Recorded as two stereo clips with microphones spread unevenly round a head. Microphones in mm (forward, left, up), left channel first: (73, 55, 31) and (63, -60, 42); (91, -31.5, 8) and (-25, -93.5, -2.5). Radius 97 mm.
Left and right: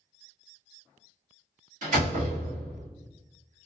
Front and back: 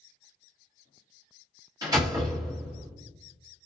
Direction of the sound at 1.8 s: 95° right.